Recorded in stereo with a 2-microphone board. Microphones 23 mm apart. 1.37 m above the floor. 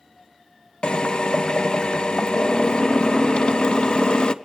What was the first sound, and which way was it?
A drill, 40° left (ahead or behind).